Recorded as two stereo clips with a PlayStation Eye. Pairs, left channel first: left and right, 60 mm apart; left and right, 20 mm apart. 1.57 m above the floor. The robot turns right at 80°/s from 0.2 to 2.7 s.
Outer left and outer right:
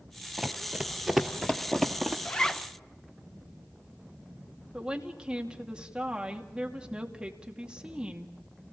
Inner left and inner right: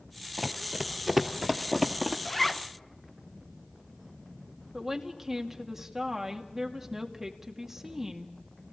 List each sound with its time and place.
0.4 s running footsteps: 15° right (ahead or behind), 1.7 m; by 2.1 s 5° right (ahead or behind), 1.9 m
2.2 s a zipper: 150° left, 0.8 m; by 2.7 s 175° right, 0.8 m
4.7 s a woman speaking: 15° right (ahead or behind), 2.5 m